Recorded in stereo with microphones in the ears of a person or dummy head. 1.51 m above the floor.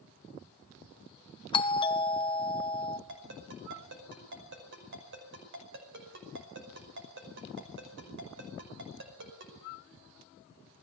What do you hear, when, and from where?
1.5 s a doorbell: 30° left (ahead or behind), 1.0 m
3.1 s a ringtone: 60° right (ahead or behind), 5 m